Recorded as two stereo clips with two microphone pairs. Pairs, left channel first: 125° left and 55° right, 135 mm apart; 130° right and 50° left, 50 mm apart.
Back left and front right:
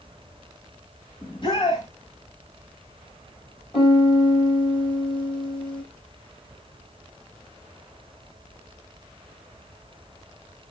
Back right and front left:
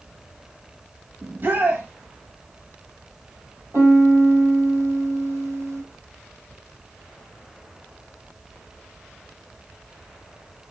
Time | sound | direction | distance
1.2 | a shout | 85° left | 1.7 m
3.7 | a piano | 75° left | 5.5 m